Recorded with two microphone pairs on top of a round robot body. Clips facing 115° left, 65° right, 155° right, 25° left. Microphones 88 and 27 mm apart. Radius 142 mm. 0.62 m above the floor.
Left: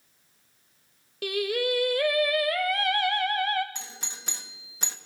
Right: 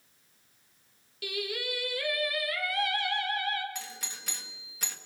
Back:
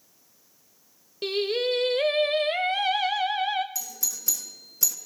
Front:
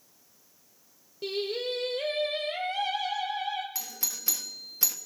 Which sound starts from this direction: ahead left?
A doorbell, at 3.8 s.